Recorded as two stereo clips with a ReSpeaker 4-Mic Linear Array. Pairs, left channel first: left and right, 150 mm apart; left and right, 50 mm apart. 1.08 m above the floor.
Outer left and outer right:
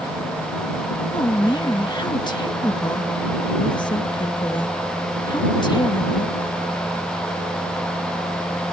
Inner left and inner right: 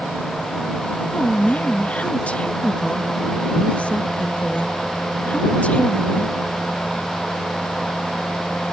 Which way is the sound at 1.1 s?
30° left (ahead or behind).